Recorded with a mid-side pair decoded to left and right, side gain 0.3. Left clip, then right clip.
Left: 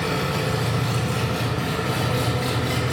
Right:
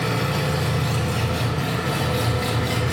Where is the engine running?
15° right, 1.8 m.